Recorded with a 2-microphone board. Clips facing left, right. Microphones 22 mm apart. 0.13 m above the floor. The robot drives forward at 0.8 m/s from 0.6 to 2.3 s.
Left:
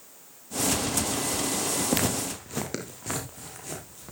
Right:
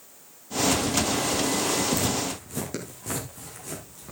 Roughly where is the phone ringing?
I don't hear a phone ringing.